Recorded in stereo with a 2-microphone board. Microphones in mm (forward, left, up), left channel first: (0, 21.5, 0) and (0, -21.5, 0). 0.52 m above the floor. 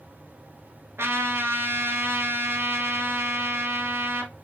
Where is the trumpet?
75° right (ahead or behind), 1.3 m.